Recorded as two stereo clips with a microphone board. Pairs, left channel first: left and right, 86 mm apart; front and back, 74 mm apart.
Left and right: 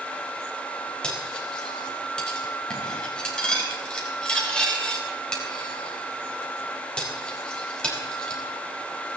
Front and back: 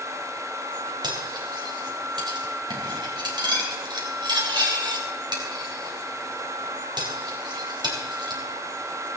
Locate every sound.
1.0 s cutlery clinking: 170° left, 4 m